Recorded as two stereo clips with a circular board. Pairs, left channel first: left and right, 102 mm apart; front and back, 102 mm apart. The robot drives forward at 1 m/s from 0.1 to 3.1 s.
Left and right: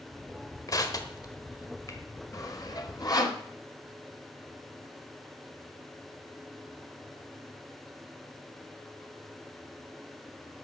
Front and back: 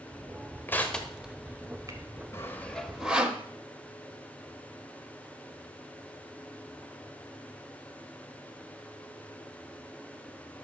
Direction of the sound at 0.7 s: 60° left.